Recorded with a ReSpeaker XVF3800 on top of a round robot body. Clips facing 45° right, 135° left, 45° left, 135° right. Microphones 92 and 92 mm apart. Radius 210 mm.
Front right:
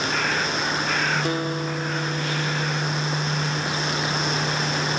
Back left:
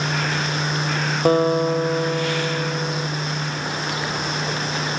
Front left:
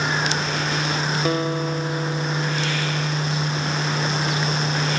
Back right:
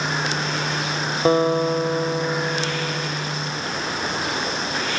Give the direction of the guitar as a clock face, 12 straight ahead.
6 o'clock.